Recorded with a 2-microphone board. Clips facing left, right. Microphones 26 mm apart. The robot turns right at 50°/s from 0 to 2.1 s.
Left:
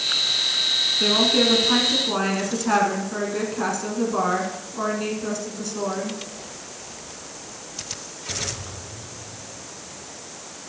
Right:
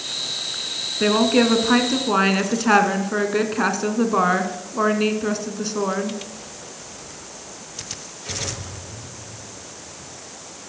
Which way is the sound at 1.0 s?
140° right.